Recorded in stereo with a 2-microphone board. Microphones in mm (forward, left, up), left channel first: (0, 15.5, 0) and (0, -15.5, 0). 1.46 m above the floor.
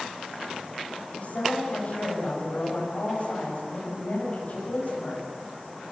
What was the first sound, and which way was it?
A woman speaking, 45° left (ahead or behind).